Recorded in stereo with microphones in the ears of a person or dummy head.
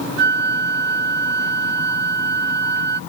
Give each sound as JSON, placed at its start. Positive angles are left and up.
{"t": 0.2, "sound": "a flute", "side_deg": -65}